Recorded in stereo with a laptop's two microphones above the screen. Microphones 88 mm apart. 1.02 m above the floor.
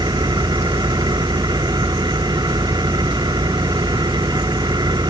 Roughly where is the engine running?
Right.